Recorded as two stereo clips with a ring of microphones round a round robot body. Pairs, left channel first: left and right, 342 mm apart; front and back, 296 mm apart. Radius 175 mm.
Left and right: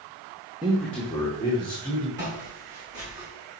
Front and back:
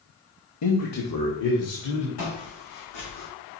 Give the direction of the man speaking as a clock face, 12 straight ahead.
12 o'clock.